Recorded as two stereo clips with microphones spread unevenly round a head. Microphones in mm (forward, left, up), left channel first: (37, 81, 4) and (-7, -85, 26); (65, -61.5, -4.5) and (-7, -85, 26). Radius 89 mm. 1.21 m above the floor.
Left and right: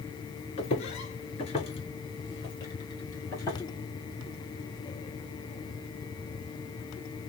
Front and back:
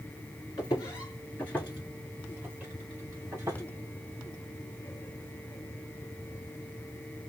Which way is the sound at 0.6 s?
70° left.